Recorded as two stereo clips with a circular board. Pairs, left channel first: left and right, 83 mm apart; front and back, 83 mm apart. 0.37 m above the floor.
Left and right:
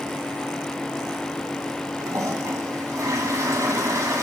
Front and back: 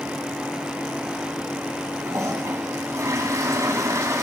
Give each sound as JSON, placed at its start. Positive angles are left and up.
{"t": 2.0, "sound": "a toilet flushing", "azimuth_deg": -135, "distance_m": 2.5}